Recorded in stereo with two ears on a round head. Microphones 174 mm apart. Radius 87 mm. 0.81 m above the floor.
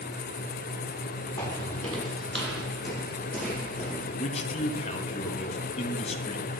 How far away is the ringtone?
No ringtone in this recording.